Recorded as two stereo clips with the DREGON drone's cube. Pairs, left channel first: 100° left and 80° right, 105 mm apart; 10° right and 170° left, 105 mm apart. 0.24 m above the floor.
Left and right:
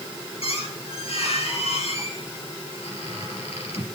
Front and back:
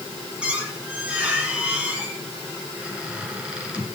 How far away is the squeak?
About 3 m.